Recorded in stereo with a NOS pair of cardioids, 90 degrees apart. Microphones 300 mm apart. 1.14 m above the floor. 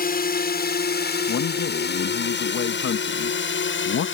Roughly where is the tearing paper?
No tearing paper in this recording.